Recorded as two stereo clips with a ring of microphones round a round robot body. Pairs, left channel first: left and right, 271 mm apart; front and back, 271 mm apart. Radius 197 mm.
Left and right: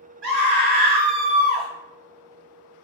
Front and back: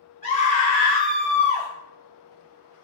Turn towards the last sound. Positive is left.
turn(degrees=-110)